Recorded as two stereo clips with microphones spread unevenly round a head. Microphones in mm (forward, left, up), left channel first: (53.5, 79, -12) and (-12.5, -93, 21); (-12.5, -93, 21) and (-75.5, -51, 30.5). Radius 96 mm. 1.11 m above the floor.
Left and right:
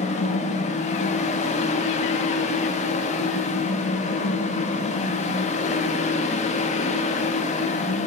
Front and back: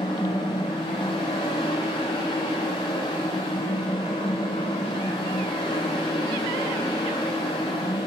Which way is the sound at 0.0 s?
10° left.